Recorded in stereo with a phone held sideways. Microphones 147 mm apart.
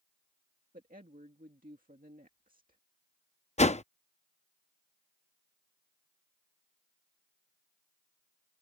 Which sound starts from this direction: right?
A woman speaking, at 0.7 s.